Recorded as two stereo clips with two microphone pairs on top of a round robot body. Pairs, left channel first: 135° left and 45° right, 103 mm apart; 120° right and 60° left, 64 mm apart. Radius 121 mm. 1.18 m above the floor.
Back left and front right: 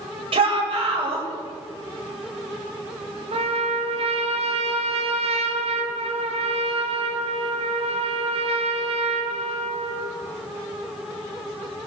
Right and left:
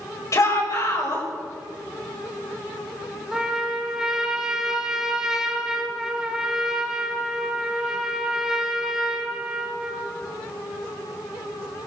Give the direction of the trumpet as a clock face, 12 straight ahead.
1 o'clock.